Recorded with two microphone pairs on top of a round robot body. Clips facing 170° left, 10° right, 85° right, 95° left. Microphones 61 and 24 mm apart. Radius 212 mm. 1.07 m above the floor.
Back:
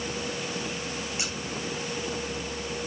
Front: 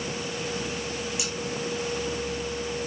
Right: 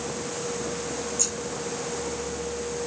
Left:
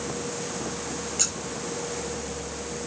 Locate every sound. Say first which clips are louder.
1.2 s scissors: front 1 dB, left 3 dB; 115° left, 0.6 m